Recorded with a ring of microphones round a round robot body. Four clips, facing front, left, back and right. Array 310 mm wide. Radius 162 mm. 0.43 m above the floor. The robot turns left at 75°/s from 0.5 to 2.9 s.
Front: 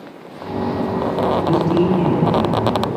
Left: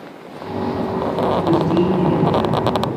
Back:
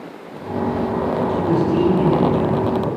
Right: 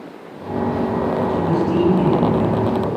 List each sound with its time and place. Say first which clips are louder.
1.3 s a man speaking: left 4 dB, front 2 dB; 45° left, 3 m; by 2.9 s 70° right, 3 m